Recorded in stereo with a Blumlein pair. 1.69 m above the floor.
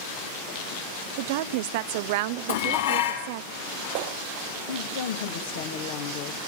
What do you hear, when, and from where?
1.2 s a woman speaking: 50° right, 0.8 m
2.5 s dishes clattering: 65° left, 7.5 m
4.7 s a woman speaking: 55° left, 2 m